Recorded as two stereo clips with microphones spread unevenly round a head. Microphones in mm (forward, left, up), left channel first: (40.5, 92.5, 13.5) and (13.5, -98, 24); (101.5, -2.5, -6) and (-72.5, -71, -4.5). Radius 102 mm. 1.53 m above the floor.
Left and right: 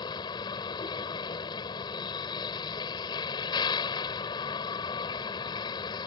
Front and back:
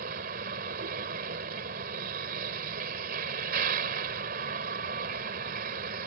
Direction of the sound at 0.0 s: 155° left.